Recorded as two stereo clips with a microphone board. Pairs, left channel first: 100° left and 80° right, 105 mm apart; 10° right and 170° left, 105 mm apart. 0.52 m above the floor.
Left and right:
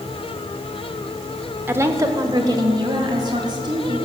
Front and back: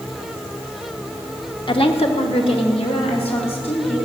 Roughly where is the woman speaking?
Ahead.